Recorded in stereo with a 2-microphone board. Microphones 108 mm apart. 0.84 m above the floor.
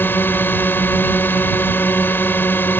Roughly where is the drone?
Left.